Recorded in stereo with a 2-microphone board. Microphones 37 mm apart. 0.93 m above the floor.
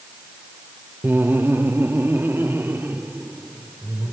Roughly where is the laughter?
Right.